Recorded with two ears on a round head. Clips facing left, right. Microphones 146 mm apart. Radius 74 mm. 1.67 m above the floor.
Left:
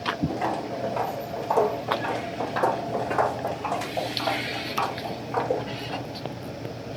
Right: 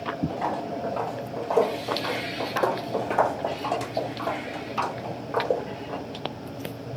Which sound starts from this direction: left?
Footsteps, at 0.3 s.